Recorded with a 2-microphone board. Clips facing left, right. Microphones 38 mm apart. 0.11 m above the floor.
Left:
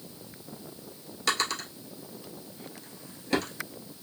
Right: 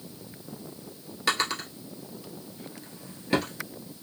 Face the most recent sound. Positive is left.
turn(degrees=-10)  # may be behind; listen again after turning